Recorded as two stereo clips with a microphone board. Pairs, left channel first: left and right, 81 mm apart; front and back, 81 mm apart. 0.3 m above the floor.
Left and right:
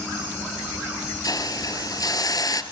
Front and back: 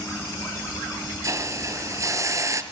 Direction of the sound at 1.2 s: 130° left.